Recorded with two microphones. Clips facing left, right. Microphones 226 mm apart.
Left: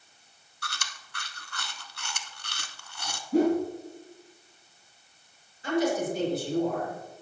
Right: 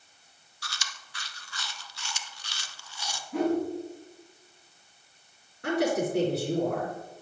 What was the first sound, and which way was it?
Chewing, 55° left (ahead or behind).